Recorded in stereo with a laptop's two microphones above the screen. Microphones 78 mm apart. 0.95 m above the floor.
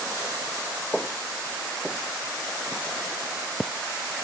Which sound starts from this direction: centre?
Footsteps, at 0.9 s.